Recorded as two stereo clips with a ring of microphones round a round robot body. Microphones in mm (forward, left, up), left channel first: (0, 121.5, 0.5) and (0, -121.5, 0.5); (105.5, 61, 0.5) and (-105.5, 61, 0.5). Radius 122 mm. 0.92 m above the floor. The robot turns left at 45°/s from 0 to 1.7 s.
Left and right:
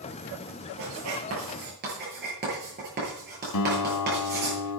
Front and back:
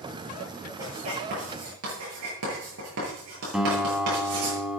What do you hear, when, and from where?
0.8 s writing: 100° right, 9.5 m; by 4.5 s 140° right, 9.5 m
3.5 s a guitar: 95° left, 2 m